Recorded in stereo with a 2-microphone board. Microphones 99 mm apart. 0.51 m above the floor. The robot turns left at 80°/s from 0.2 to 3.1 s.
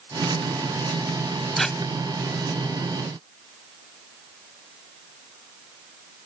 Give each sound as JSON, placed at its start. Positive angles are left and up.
{"t": 1.6, "sound": "tape being pulled", "side_deg": 0}